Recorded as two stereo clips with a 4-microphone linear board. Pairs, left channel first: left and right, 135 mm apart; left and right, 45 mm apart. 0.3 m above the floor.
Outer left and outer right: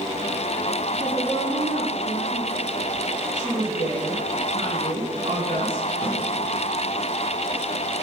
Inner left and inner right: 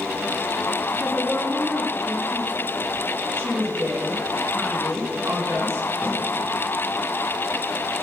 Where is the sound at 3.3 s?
60° right (ahead or behind), 3 m.